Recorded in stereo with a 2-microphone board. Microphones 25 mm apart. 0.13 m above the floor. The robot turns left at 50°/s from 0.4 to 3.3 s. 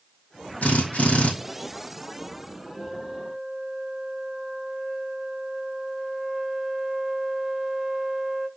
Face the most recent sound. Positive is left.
turn(degrees=-20)  # may be behind; listen again after turning